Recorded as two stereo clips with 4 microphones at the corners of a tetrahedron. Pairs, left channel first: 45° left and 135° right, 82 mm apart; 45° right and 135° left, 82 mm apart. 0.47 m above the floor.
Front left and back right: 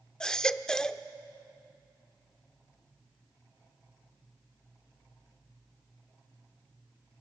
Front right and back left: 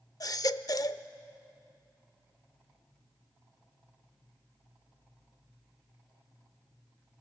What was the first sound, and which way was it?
A baby crying, 35° right.